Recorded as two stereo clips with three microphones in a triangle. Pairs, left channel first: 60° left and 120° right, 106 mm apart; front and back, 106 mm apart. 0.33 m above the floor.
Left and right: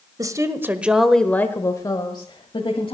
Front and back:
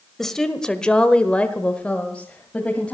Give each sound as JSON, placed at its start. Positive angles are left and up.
{"t": 0.2, "sound": "a woman speaking", "azimuth_deg": -85, "distance_m": 1.4}